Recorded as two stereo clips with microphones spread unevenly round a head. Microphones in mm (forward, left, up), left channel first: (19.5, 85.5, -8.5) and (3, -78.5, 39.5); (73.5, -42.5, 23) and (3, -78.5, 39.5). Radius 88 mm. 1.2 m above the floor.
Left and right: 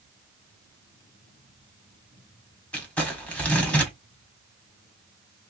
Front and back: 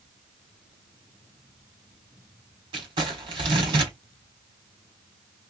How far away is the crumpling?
About 1.3 m.